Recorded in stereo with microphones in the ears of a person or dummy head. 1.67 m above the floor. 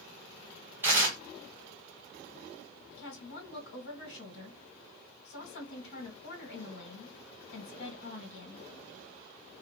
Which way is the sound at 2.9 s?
75° left (ahead or behind).